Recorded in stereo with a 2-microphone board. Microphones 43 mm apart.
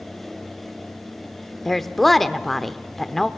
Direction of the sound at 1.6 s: 10° left (ahead or behind).